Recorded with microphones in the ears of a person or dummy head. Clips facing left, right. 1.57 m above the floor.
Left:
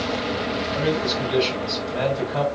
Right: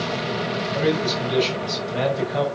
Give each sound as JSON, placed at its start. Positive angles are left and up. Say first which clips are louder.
{"t": 0.8, "sound": "a man speaking", "louder": "right 2 dB", "side_deg": -20, "distance_m": 7.5}